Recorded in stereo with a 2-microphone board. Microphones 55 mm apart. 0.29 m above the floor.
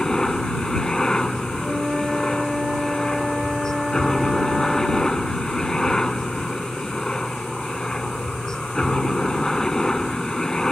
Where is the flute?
10° right (ahead or behind).